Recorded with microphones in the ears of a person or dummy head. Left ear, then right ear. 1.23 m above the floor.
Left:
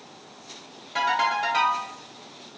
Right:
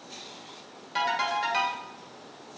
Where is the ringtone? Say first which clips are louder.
Left 4 dB; 15° right (ahead or behind), 0.8 m.